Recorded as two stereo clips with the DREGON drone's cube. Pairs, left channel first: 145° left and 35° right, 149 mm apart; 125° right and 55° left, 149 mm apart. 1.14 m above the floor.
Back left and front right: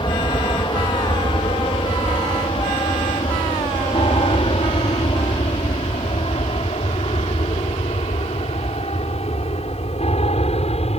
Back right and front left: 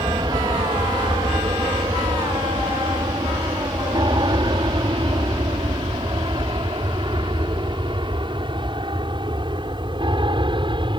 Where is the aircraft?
105° left; by 11.0 s 110° left.